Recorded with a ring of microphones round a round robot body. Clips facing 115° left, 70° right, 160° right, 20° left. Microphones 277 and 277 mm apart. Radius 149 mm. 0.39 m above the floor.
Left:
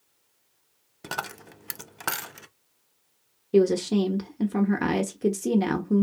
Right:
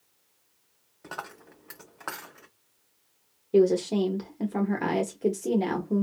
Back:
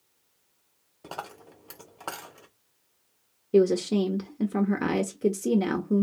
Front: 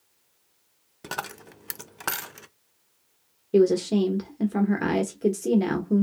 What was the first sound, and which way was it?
A dropped coin, 80° left.